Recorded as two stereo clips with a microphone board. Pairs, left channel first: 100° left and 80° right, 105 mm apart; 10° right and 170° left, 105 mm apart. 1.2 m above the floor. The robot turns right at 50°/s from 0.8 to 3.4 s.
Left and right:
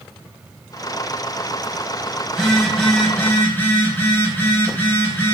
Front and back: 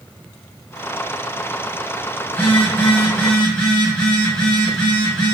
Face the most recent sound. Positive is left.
turn(degrees=55)